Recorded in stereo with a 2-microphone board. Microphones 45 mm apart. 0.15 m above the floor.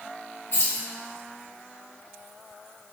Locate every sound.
0.5 s keys jangling: 60° left (ahead or behind), 1.8 m